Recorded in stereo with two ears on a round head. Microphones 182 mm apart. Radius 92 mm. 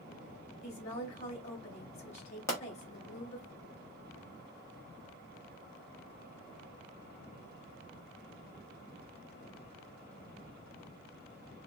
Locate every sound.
0.6 s a woman speaking: 30° left (ahead or behind), 1.4 m
2.5 s a pop: 15° left (ahead or behind), 1.0 m